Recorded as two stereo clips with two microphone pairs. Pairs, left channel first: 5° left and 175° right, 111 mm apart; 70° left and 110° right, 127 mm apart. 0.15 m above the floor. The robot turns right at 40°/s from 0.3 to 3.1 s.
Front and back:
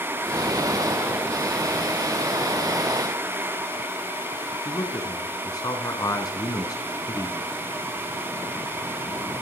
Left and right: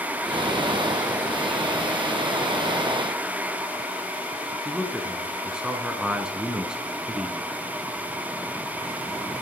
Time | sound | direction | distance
4.7 | a man speaking | 30° right | 1.2 m